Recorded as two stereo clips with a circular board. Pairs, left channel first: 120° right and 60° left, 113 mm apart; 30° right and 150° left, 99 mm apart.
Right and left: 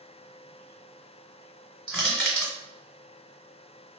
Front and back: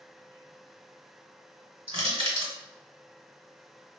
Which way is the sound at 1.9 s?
150° left.